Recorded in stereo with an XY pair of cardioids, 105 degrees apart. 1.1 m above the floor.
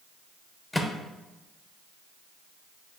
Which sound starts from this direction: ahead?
A microwave, at 0.7 s.